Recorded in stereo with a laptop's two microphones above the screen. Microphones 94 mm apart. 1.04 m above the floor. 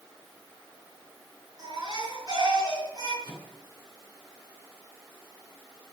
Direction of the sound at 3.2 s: 50° right (ahead or behind).